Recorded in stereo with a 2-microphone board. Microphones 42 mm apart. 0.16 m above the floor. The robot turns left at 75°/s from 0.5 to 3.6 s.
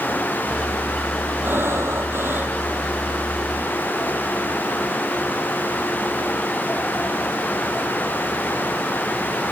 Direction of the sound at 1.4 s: 50° right.